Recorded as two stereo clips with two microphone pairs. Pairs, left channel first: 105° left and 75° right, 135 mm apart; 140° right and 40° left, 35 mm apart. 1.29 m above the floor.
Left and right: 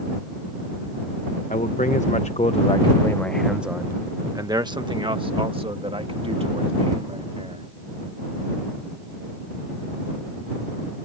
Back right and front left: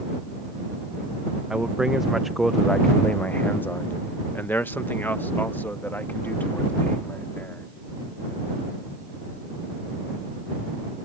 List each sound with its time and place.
1.5 s a man speaking: 110° left; by 7.7 s 115° right